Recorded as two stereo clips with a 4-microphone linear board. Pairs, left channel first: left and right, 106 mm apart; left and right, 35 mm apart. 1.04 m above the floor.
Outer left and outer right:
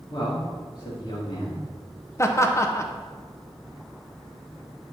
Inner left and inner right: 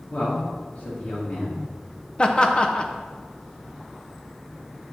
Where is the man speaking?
55° left (ahead or behind), 2 m.